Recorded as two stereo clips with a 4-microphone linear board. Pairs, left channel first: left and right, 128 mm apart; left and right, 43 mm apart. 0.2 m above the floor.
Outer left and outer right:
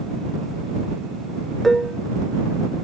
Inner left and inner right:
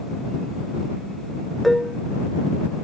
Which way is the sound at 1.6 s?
Centre (ahead or behind).